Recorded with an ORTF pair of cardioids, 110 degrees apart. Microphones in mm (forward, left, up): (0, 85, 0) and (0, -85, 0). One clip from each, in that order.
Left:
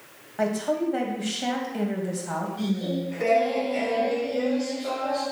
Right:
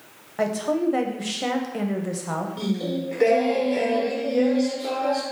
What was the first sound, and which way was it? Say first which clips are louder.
A woman speaking: right 2 dB; 20° right.